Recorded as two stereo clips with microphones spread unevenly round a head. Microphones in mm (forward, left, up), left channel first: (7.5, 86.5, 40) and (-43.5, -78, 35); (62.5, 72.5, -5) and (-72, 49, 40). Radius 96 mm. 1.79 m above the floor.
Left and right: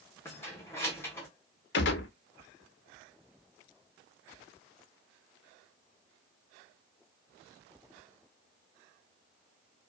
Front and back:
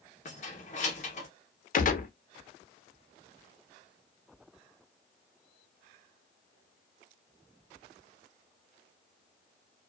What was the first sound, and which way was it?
Keys jangling, 10° left.